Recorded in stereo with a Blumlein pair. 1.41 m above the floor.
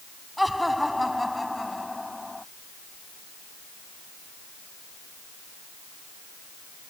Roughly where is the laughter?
Ahead.